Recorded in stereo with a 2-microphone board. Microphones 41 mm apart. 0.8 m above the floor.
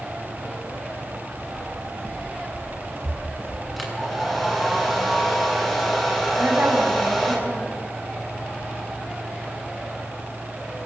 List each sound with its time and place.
1.6 s footsteps: 70° right (ahead or behind), 5 m; by 3.7 s 65° right (ahead or behind), 3 m
3.8 s a hair dryer: centre (ahead or behind), 6.5 m
6.4 s a woman speaking: 50° right (ahead or behind), 7 m